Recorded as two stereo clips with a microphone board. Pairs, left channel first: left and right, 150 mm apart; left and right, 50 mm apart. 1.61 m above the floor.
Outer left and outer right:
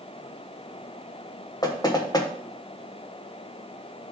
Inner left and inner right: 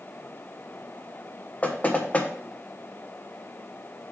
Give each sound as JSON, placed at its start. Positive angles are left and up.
{"t": 1.6, "sound": "knocking", "side_deg": 25, "distance_m": 1.3}